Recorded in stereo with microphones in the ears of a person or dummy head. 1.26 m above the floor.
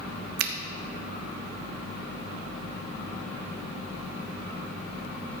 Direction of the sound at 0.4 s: 55° right (ahead or behind).